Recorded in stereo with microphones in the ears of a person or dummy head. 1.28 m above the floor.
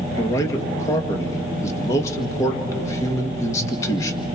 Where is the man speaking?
20° left (ahead or behind), 1.7 m.